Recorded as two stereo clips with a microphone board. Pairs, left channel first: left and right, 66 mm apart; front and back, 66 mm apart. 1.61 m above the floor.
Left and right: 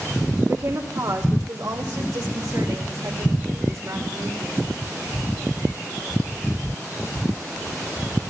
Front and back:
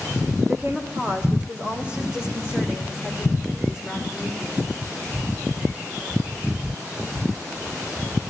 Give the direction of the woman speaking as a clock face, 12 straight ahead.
4 o'clock.